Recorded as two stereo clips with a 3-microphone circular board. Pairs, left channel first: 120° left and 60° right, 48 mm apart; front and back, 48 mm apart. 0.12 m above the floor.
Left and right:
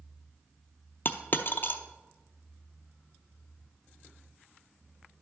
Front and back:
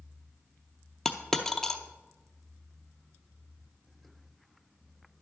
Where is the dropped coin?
80° left, 0.6 m.